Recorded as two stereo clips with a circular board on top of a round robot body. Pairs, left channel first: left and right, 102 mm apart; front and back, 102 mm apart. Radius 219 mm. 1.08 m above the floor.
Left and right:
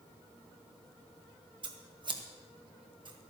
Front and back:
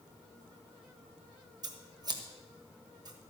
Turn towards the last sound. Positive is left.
turn(degrees=-130)